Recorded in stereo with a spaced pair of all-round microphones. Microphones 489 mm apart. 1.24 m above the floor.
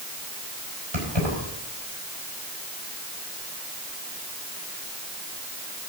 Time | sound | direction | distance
0.9 | keys jangling | 70° right (ahead or behind) | 5 m